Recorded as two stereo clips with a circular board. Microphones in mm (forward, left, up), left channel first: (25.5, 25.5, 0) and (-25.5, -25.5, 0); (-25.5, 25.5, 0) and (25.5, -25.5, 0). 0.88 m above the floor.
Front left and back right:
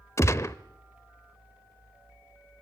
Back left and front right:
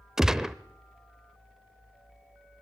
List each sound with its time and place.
0.2 s a gunshot: 35° left, 0.7 m